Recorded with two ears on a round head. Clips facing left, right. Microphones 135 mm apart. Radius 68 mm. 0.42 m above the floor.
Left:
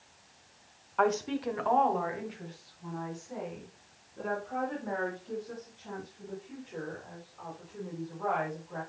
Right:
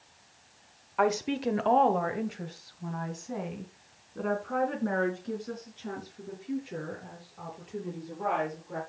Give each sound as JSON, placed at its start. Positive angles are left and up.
{"t": 1.0, "sound": "a woman speaking", "side_deg": -5, "distance_m": 1.0}